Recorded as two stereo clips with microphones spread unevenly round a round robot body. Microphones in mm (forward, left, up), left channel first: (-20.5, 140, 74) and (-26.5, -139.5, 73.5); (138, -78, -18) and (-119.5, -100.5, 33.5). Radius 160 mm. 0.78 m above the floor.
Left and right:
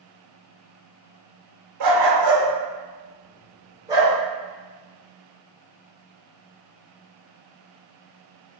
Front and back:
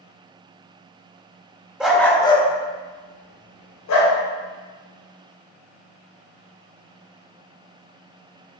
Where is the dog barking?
90° right, 1.0 m; by 4.1 s 10° right, 1.3 m.